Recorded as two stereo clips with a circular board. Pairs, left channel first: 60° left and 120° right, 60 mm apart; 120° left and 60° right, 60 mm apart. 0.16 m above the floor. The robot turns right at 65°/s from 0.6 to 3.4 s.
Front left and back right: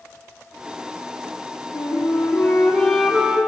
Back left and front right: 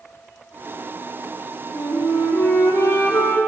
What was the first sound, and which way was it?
A flute, 70° left.